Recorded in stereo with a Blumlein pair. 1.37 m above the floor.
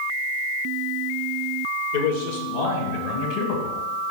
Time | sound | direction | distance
1.9 | a man speaking | 50° left | 4.5 m